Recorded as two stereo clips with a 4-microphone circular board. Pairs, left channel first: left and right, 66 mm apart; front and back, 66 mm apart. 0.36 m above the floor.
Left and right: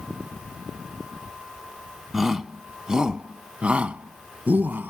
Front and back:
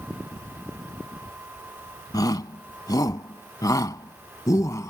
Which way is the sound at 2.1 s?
Straight ahead.